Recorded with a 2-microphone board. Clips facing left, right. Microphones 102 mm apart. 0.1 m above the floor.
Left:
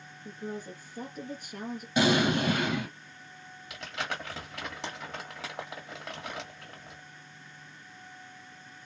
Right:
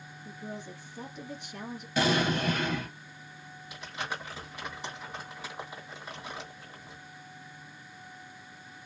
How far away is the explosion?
About 2 m.